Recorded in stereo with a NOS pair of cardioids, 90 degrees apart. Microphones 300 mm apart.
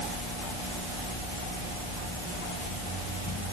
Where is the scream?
I don't hear a scream.